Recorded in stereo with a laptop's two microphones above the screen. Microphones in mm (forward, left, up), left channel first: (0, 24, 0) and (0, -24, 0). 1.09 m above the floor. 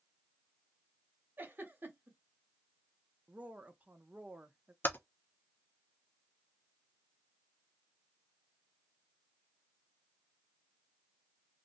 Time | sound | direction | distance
1.4 | a giggle | 45° right (ahead or behind) | 0.9 m
3.3 | a woman speaking | 30° right (ahead or behind) | 0.6 m
4.8 | typing on a keyboard | 40° left (ahead or behind) | 0.5 m